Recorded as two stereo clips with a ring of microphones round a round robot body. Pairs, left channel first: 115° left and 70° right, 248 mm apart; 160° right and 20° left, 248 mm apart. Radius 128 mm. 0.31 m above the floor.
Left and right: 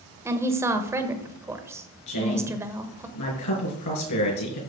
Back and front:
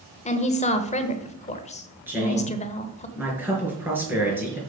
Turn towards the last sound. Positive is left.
turn(degrees=105)